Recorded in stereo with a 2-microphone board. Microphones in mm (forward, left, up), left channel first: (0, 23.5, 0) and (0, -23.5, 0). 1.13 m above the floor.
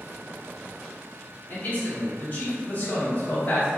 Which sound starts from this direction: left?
A man speaking, at 1.5 s.